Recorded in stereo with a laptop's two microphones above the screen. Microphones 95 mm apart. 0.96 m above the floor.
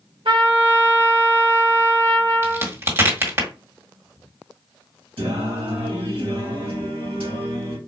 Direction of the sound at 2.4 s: 25° right (ahead or behind).